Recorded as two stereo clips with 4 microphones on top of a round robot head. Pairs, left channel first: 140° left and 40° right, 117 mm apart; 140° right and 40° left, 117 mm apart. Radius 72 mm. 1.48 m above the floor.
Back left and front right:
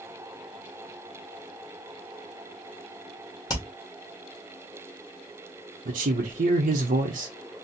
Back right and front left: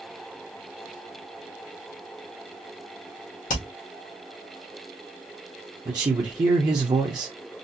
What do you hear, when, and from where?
3.5 s hammering: 160° right, 1.4 m
5.8 s a man speaking: 20° right, 0.7 m